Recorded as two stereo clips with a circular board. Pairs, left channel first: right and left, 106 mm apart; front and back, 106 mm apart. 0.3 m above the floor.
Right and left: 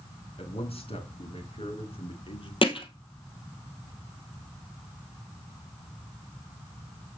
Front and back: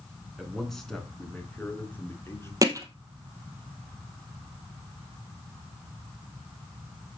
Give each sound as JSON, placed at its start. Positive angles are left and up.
{"t": 0.4, "sound": "a man speaking", "azimuth_deg": -95, "distance_m": 3.5}
{"t": 2.6, "sound": "hammering", "azimuth_deg": -125, "distance_m": 1.9}